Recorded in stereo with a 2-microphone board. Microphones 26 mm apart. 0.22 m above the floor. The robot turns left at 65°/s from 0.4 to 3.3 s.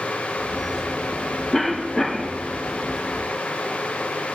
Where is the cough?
15° left (ahead or behind), 1.3 m; by 2.4 s 20° left (ahead or behind), 1.3 m.